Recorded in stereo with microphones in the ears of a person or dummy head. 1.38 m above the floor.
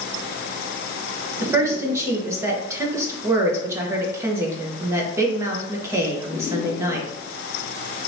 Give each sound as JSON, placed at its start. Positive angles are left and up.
{"t": 1.4, "sound": "a woman speaking", "side_deg": -15, "distance_m": 1.2}